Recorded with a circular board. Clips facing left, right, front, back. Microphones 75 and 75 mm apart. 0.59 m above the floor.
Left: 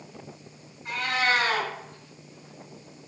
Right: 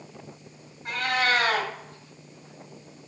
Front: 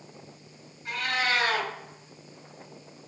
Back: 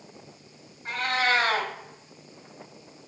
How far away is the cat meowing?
About 1.3 m.